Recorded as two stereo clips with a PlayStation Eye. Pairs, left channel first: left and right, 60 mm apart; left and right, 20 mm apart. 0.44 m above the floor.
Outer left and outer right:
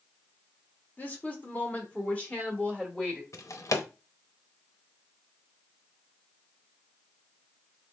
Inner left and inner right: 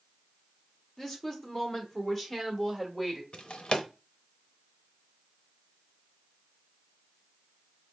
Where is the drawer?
65° left (ahead or behind), 0.7 m.